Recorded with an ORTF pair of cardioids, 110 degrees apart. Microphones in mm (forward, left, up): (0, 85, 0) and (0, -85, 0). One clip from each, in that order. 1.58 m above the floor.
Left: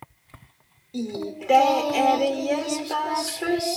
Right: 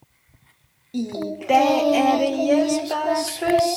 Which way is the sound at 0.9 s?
15° right.